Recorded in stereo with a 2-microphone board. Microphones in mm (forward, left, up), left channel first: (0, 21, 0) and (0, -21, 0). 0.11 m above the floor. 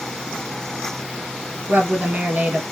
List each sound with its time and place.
1.7 s a woman speaking: 40° right (ahead or behind), 1.9 m